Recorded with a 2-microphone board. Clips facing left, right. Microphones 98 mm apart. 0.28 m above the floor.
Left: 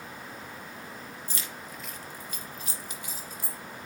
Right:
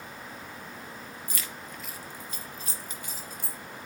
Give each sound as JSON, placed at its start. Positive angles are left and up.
{"t": 1.3, "sound": "keys jangling", "side_deg": 30, "distance_m": 0.6}